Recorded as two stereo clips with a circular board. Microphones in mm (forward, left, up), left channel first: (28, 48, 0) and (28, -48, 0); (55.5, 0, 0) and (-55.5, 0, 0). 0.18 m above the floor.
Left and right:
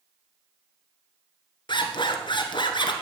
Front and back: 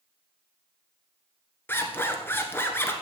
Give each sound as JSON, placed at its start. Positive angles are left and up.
{"t": 1.7, "sound": "a zipper", "azimuth_deg": 70, "distance_m": 1.2}